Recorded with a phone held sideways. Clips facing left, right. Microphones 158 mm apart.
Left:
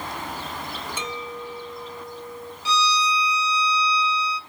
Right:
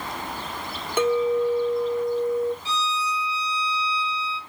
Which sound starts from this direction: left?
A violin, at 2.6 s.